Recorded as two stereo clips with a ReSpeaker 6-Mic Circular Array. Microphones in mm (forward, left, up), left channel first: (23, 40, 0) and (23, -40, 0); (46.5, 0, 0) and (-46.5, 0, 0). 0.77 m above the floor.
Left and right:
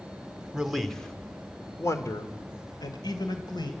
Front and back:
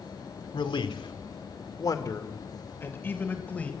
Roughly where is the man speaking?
Ahead.